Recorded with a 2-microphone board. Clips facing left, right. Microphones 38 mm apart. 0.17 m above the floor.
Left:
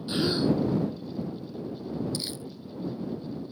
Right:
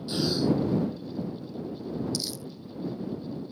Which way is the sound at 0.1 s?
20° left (ahead or behind).